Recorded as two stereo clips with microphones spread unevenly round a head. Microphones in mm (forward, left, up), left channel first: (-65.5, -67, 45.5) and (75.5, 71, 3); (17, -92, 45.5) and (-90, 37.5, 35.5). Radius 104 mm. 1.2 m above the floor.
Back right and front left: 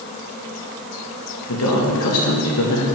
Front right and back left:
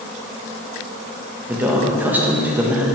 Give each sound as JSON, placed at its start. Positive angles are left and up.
{"t": 1.5, "sound": "a man speaking", "azimuth_deg": -150, "distance_m": 1.7}